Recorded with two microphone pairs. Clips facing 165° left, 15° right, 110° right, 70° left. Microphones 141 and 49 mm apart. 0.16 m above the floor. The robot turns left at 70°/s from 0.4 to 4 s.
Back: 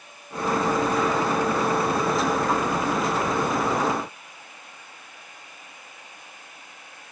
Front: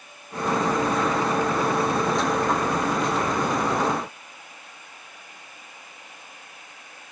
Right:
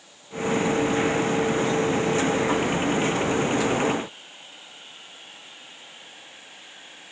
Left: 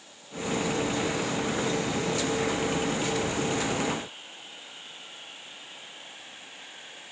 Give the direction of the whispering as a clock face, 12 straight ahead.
I don't hear whispering.